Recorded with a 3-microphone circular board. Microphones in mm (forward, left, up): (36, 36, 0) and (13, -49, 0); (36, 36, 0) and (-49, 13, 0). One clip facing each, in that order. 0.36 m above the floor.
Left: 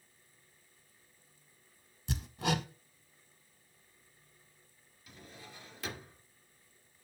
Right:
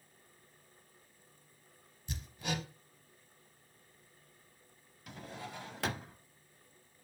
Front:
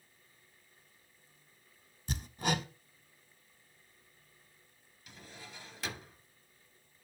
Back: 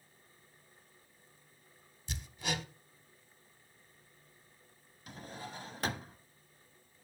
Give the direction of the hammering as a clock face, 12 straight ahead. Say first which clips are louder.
Left 6 dB, front 5 dB; 10 o'clock.